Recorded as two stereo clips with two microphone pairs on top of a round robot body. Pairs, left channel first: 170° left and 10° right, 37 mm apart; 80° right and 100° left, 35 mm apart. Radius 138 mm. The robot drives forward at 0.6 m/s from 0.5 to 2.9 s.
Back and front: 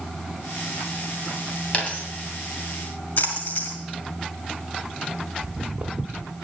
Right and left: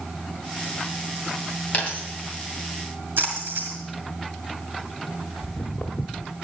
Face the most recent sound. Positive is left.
turn(degrees=-45)